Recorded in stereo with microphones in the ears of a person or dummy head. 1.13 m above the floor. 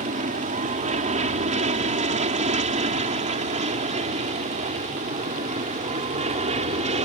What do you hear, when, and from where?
0.0 s an aircraft: 35° right (ahead or behind)